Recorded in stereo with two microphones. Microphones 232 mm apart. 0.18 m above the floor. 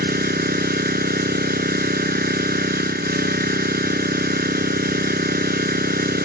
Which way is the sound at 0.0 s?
40° right (ahead or behind).